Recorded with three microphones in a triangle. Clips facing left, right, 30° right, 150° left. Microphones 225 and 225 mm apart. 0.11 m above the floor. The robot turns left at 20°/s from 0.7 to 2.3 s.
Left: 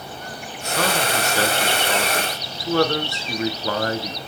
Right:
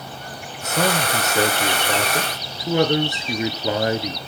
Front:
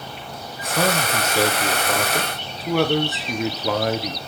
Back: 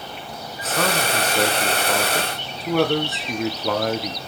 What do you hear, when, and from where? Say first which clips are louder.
0.6 s a man speaking: right 2 dB, front 1 dB; 85° right, 1.2 m; by 4.2 s 120° right, 1.2 m